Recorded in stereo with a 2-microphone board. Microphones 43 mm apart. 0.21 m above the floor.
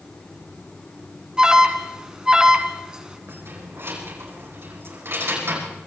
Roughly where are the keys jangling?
Right.